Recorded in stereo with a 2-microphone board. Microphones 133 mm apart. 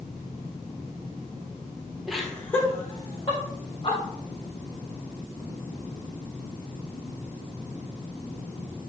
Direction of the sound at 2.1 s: Centre (ahead or behind).